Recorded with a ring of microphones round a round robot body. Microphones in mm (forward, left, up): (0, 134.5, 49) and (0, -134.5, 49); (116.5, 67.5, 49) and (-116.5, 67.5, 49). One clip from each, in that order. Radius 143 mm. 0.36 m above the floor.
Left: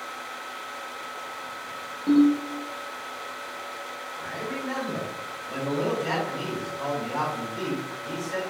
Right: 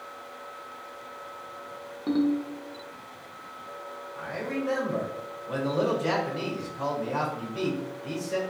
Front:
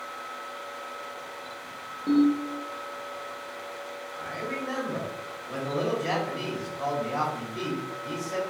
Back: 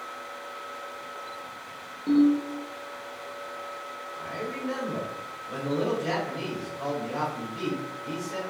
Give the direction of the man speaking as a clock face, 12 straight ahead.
3 o'clock.